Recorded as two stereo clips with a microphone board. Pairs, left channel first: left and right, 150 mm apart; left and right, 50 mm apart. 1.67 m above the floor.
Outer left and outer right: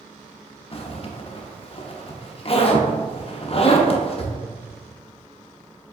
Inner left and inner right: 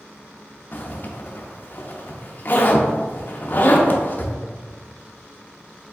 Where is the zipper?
40° left (ahead or behind), 0.6 m.